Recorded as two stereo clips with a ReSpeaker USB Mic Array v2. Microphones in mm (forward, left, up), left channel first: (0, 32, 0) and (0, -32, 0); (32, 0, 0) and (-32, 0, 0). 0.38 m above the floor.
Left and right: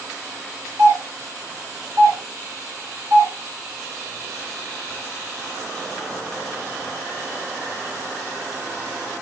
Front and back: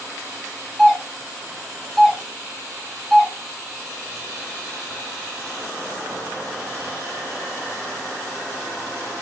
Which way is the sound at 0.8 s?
95° right.